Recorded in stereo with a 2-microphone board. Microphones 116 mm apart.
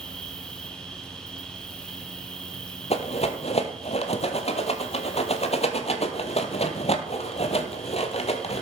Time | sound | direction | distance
0.0 | an insect | 5° left (ahead or behind) | 2.0 m
2.9 | a rattle | 60° left (ahead or behind) | 1.0 m